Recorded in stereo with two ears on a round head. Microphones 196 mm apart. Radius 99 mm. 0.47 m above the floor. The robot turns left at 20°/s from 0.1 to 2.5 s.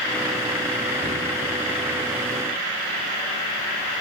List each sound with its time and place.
1.0 s a cupboard door: 10° right (ahead or behind), 1.9 m